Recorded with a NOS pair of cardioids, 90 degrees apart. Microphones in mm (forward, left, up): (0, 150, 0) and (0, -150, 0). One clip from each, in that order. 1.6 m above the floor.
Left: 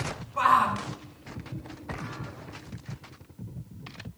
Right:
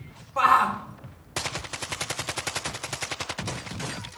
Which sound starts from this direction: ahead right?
A shout, at 0.4 s.